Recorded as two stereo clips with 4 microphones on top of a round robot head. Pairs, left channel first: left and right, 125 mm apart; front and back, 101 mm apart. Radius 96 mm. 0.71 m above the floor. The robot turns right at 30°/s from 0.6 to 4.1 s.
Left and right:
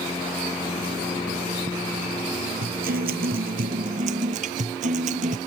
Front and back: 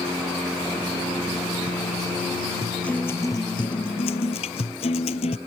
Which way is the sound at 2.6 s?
90° right.